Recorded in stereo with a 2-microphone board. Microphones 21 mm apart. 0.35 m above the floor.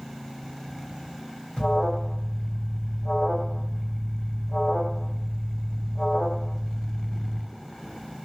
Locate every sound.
1.6 s an alarm: 35° left (ahead or behind), 1.6 m